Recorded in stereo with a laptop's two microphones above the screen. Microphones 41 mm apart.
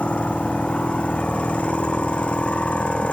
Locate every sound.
0.0 s a machine running: 30° left (ahead or behind)